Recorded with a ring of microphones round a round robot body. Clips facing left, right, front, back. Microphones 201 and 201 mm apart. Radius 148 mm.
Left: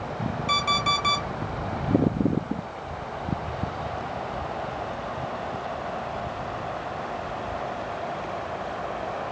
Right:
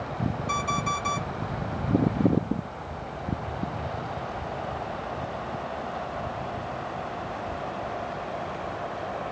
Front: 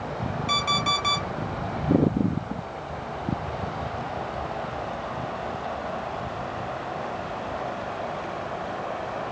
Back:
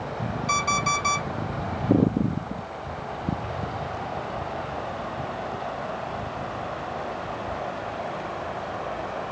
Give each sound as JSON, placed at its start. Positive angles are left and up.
{"t": 0.5, "sound": "an alarm clock", "azimuth_deg": 80, "distance_m": 1.6}